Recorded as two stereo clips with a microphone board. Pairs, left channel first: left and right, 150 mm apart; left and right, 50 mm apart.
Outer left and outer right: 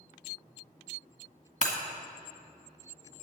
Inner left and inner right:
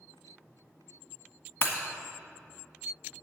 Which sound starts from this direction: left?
Breaking glass, at 1.6 s.